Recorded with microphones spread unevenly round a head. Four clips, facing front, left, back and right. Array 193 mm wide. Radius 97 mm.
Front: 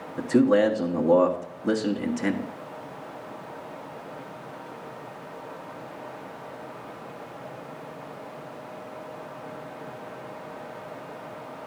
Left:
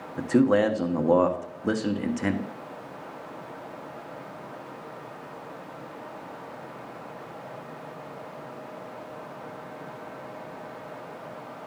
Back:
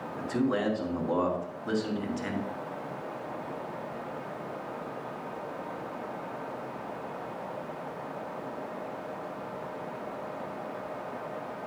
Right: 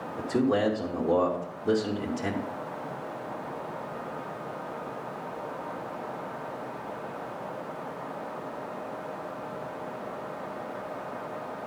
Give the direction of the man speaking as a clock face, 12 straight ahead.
10 o'clock.